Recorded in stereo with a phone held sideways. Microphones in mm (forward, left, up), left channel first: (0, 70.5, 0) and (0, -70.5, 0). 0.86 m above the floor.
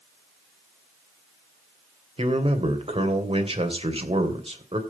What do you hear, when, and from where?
2.2 s a man speaking: 40° right (ahead or behind), 3 m